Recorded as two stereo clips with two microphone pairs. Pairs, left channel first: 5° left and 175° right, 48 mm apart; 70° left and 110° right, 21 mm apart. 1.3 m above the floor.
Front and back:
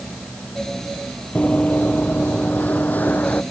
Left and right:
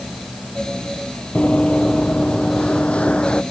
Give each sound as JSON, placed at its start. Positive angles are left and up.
{"t": 1.4, "sound": "running footsteps", "azimuth_deg": 65}